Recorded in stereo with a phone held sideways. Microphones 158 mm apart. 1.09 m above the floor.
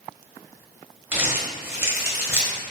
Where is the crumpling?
15° right (ahead or behind), 0.8 m.